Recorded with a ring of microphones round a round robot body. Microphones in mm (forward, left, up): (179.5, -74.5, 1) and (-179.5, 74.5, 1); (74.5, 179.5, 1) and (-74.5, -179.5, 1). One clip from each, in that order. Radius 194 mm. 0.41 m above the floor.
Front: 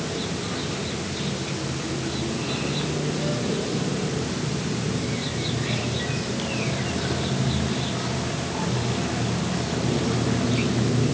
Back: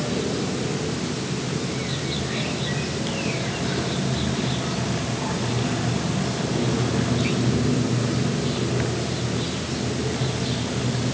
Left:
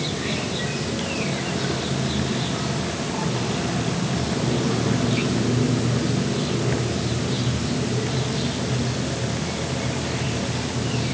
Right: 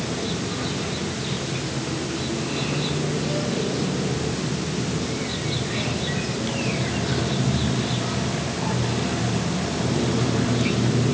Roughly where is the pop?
No pop in this recording.